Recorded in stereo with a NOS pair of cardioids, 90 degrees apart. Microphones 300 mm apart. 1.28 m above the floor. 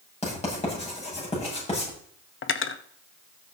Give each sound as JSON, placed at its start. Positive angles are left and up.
{"t": 0.2, "sound": "writing", "azimuth_deg": 20, "distance_m": 8.0}
{"t": 2.4, "sound": "cutlery clinking", "azimuth_deg": 45, "distance_m": 1.1}